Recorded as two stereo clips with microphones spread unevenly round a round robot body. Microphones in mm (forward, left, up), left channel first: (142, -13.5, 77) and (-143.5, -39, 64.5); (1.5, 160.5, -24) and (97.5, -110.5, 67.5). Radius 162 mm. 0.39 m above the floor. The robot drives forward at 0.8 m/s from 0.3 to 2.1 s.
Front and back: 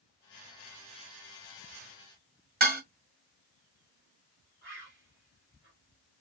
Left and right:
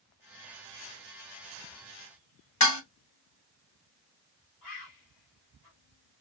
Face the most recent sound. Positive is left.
turn(degrees=130)